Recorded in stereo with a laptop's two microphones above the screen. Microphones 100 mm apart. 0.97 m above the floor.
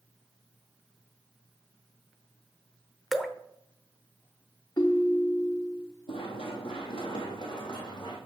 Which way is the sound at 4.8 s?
45° left (ahead or behind).